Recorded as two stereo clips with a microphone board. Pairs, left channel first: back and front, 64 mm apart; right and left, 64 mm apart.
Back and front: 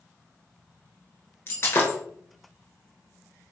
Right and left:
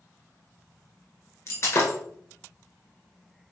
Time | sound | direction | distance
1.5 | breaking glass | 130° right | 1.1 m